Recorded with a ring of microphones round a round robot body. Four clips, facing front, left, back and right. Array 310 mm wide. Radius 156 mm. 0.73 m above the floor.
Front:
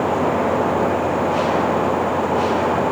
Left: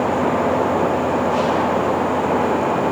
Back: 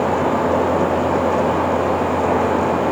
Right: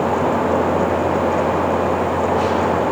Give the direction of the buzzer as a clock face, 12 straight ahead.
No buzzer in this recording.